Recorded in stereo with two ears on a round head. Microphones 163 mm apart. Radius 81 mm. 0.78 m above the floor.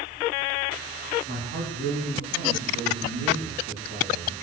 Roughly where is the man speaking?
Right.